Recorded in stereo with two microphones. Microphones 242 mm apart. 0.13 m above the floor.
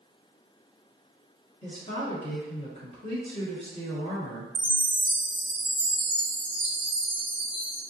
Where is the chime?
20° left (ahead or behind), 1.2 m.